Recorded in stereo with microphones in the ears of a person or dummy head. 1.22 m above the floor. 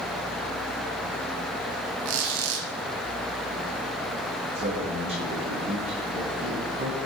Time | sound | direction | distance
2.0 | a squeak | 85° right | 4.5 m
4.5 | a man speaking | 35° right (ahead or behind) | 9.5 m